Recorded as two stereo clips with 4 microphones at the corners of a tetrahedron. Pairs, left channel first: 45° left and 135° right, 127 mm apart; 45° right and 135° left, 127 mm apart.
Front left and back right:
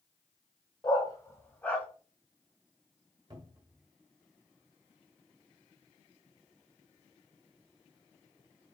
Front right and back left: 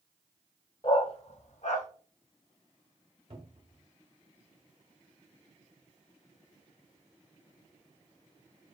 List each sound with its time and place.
0.8 s a dog barking: 5° right, 0.8 m; by 1.9 s 35° right, 1.2 m
3.3 s a cupboard door: 170° left, 1.3 m